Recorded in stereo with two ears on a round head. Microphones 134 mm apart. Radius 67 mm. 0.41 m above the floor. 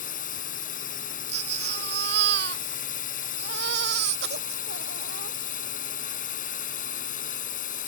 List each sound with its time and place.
0.0 s a drone: 60° left (ahead or behind)
1.3 s a baby crying: 80° right